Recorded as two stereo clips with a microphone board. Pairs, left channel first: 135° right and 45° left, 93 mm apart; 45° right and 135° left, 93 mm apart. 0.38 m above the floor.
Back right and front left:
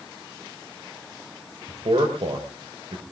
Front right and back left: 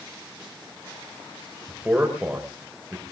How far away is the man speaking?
About 4.5 m.